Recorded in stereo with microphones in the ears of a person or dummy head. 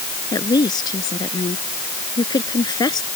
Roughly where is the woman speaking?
Left.